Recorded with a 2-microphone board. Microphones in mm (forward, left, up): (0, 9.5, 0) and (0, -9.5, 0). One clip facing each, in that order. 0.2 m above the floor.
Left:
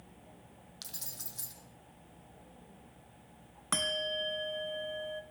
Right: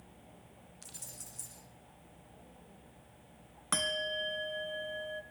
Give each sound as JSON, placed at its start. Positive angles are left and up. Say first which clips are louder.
{"t": 0.8, "sound": "keys jangling", "louder": "left 4 dB", "side_deg": 70, "distance_m": 5.0}
{"t": 3.7, "sound": "a bell", "louder": "left 1 dB", "side_deg": 0, "distance_m": 0.9}